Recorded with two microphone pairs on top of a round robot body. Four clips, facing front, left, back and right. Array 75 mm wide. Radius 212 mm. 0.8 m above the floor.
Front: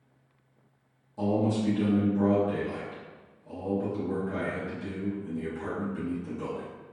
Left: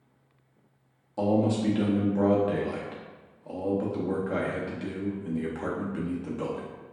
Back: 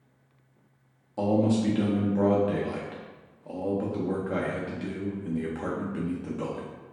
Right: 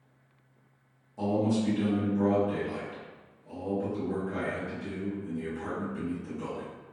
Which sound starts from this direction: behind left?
A man speaking, at 1.2 s.